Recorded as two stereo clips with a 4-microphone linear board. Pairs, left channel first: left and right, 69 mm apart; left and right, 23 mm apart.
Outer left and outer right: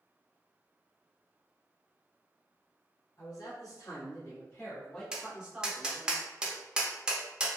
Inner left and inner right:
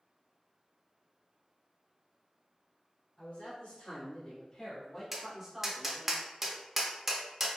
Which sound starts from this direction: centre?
Tapping, at 5.1 s.